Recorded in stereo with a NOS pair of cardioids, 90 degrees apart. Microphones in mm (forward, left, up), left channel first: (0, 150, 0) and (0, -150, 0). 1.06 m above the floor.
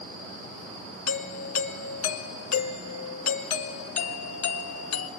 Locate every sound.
1.1 s a doorbell: 70° left, 1.6 m